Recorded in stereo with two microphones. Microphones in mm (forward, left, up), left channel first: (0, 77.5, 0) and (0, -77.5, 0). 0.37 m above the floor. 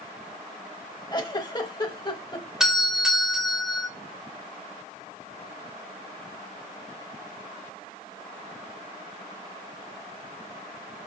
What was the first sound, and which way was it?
A giggle, 30° left (ahead or behind).